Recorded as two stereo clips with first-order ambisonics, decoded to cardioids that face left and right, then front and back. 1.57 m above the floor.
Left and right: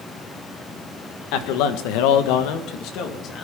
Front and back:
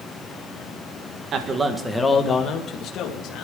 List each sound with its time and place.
1.3 s a man speaking: 120° left, 1.8 m; by 3.5 s 40° left, 3 m